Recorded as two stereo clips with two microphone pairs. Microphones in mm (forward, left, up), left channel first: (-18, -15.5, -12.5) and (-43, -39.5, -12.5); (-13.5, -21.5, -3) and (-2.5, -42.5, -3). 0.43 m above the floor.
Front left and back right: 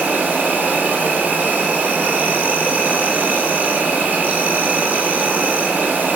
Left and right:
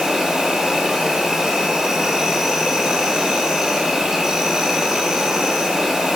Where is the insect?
125° right, 2.5 m.